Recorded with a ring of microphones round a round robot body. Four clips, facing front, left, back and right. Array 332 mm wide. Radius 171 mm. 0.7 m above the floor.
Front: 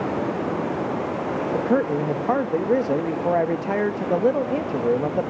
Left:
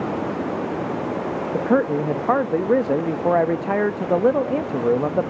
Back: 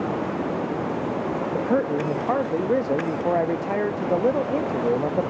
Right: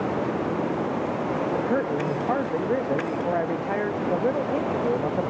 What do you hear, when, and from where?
1.5 s a man speaking: 75° left, 0.5 m